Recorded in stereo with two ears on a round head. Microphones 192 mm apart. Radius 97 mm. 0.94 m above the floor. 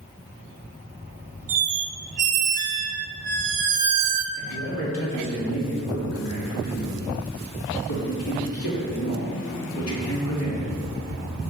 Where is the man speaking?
75° left (ahead or behind), 2 m.